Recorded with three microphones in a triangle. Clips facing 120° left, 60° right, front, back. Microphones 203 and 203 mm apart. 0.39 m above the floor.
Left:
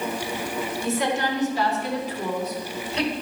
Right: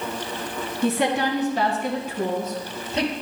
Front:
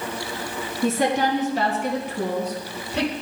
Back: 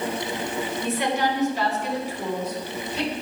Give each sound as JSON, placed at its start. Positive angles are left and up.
{"t": 0.8, "sound": "a woman speaking", "azimuth_deg": -45, "distance_m": 2.5}